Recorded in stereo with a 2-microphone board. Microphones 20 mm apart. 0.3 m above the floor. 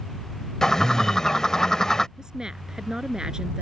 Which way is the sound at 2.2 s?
35° right (ahead or behind).